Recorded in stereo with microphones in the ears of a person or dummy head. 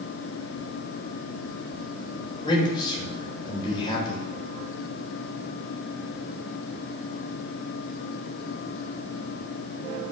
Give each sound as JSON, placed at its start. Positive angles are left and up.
{"t": 2.4, "sound": "a man speaking", "side_deg": 25, "distance_m": 3.5}